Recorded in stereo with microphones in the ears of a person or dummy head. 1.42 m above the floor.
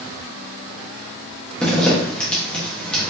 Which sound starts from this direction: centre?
A zipper, at 1.6 s.